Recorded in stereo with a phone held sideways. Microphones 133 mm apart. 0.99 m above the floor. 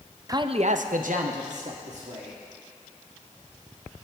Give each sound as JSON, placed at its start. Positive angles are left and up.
{"t": 0.3, "sound": "a man speaking", "side_deg": -25, "distance_m": 0.6}